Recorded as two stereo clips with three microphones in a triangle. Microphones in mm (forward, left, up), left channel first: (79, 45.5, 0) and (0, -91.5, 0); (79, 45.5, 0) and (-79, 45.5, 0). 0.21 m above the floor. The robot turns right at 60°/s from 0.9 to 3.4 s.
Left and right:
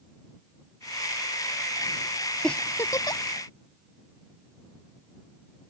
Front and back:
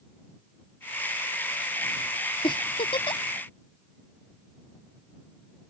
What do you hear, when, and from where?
2.4 s a giggle: 25° right; by 3.2 s 25° left